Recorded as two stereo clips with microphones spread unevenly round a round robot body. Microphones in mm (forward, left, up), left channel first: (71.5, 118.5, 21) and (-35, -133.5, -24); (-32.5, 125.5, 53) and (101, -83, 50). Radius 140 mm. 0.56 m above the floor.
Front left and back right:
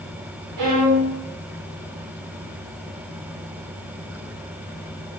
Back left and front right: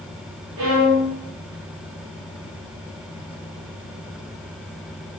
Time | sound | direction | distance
0.6 | a violin | 95° right | 5 m